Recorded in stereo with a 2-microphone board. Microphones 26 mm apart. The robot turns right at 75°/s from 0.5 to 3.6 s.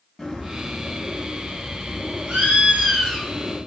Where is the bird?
170° left, 1.9 m; by 3.6 s 45° left, 1.9 m.